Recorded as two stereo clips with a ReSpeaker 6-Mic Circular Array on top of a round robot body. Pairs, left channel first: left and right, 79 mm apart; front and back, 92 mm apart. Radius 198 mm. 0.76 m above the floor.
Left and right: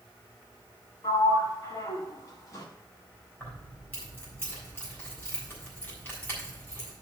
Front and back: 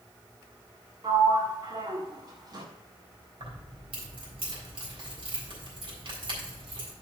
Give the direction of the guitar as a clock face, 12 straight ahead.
I don't hear a guitar.